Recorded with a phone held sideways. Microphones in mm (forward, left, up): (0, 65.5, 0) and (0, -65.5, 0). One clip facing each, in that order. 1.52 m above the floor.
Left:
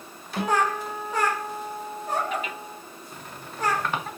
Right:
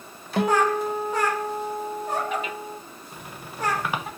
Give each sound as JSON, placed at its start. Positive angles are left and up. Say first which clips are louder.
{"t": 0.4, "sound": "a guitar", "louder": "right 4 dB", "side_deg": -80, "distance_m": 0.9}
{"t": 3.1, "sound": "a squeak", "louder": "right 1 dB", "side_deg": -10, "distance_m": 0.6}